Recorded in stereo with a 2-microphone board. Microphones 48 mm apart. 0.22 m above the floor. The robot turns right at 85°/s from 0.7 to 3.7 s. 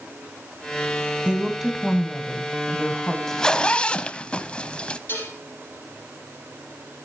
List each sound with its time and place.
1.2 s a woman speaking: 50° right, 1.6 m; by 3.2 s 115° left, 1.6 m
3.3 s a zipper: 10° left (ahead or behind), 0.6 m; by 5.0 s 25° left (ahead or behind), 0.6 m
5.1 s dishes clattering: 55° left (ahead or behind), 4.5 m